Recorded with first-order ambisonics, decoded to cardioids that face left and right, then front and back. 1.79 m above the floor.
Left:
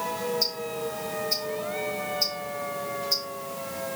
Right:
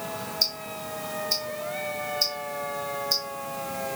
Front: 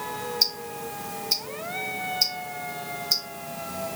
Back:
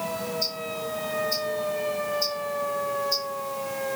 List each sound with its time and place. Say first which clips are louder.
0.4 s ticking: even, front 3 dB; 20° right, 2.5 m